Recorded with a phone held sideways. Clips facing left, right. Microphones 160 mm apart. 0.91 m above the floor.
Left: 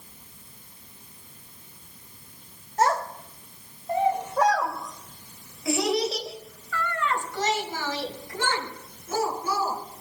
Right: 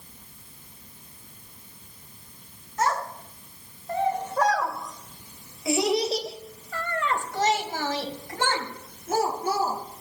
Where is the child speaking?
35° left (ahead or behind), 3 m; by 9.8 s 60° right (ahead or behind), 5.5 m.